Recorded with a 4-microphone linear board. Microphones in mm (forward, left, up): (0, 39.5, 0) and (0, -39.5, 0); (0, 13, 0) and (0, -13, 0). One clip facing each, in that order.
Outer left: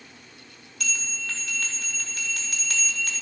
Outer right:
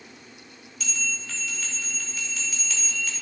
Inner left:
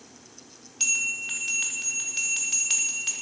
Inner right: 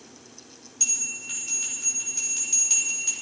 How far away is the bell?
About 4.5 m.